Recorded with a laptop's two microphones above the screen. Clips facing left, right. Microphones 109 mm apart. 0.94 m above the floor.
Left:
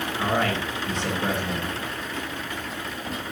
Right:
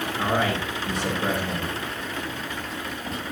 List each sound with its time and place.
0.2 s a man speaking: centre (ahead or behind), 9 m